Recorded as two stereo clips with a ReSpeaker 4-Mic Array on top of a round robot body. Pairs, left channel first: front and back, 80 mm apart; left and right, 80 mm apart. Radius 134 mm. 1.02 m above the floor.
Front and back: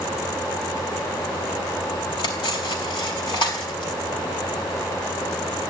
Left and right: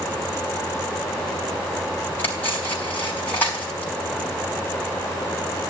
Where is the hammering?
I don't hear hammering.